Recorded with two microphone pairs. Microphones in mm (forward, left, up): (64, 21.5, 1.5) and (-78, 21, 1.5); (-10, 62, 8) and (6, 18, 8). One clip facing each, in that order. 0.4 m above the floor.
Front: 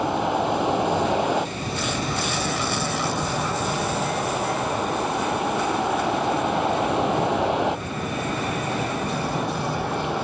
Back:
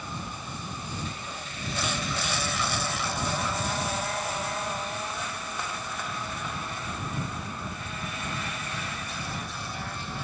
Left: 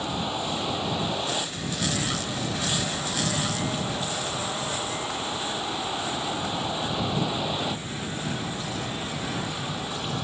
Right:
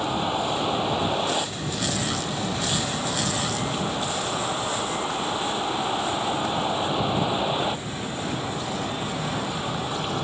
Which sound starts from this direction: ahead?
A vehicle, at 0.0 s.